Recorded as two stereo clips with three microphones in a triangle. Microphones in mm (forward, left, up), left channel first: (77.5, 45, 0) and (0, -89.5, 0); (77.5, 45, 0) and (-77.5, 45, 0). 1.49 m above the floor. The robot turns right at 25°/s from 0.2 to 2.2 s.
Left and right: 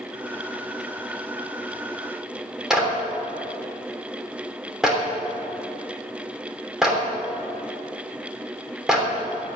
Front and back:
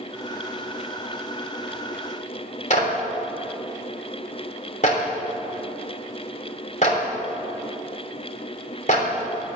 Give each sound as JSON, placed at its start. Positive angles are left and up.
{"t": 2.7, "sound": "a clap", "azimuth_deg": -35, "distance_m": 3.0}